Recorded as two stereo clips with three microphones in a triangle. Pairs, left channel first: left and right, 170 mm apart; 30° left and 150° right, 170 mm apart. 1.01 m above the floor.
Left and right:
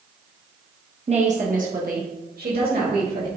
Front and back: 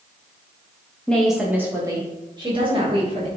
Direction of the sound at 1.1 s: 50° right.